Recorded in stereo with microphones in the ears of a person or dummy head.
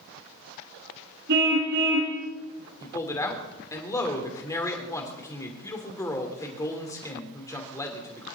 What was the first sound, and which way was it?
A car horn, 70° right (ahead or behind).